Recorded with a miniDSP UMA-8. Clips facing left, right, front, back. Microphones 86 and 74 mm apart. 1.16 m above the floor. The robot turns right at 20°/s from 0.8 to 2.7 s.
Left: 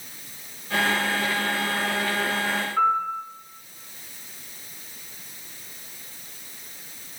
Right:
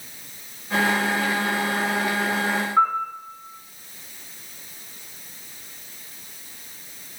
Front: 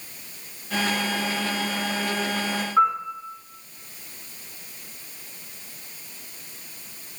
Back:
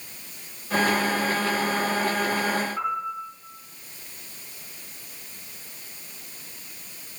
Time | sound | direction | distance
2.8 | a piano | 35° right | 5 m